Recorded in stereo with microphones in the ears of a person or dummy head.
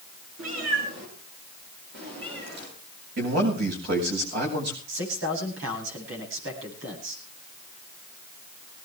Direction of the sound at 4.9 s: 85° right.